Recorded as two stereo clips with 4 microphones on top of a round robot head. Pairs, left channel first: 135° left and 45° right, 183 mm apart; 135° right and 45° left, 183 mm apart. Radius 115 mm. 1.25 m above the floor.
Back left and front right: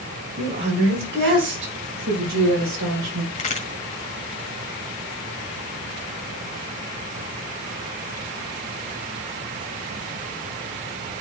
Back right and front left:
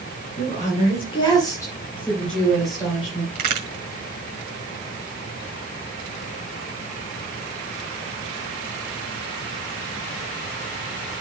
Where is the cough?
I don't hear a cough.